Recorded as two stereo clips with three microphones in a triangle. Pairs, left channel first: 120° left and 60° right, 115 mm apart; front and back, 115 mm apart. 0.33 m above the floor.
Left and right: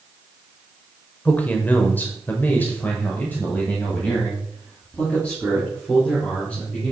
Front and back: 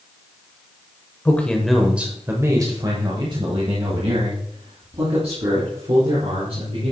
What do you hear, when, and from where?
1.2 s a man speaking: 55° left, 1.2 m; by 6.9 s 160° right, 4 m